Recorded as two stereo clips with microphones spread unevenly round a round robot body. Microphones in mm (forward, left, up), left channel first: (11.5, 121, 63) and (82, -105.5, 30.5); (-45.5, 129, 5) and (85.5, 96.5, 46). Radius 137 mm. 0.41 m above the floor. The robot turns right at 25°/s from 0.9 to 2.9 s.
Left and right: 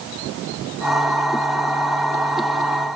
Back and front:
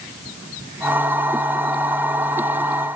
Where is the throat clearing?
No throat clearing in this recording.